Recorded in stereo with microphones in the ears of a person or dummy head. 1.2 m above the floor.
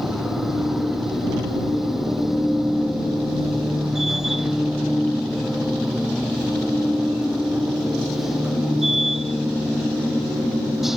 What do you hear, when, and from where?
0.0 s a machine running: centre (ahead or behind)